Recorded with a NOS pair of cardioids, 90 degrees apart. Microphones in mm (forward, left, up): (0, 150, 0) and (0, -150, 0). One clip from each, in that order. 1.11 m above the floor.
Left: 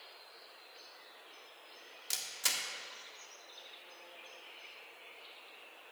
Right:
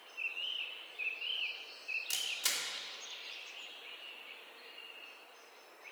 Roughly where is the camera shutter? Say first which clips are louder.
Left 2 dB; ahead.